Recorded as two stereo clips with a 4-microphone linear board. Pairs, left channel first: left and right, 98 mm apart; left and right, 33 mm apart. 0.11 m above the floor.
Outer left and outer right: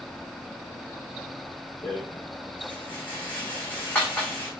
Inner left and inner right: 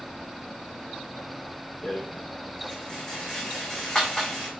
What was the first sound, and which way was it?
A rattle, 15° left (ahead or behind).